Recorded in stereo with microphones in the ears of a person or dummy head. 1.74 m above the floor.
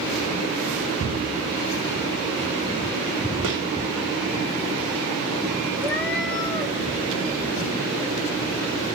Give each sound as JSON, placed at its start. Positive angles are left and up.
{"t": 3.4, "sound": "a gunshot", "side_deg": -70, "distance_m": 3.0}
{"t": 5.8, "sound": "a cat meowing", "side_deg": 10, "distance_m": 0.9}